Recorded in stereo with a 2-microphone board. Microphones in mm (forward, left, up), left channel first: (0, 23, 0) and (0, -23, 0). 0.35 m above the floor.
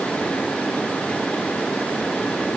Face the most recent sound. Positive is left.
No sound to turn to.